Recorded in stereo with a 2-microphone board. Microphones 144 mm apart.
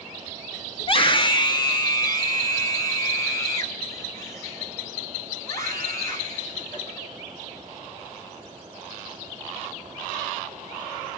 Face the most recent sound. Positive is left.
turn(degrees=20)  # may be behind; listen again after turning